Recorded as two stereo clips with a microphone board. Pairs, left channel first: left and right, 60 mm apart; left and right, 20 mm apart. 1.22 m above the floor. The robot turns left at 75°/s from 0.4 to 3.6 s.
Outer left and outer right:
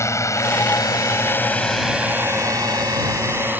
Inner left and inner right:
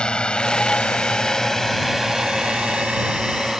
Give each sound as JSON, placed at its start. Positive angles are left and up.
{"t": 0.0, "sound": "a drone", "side_deg": 55}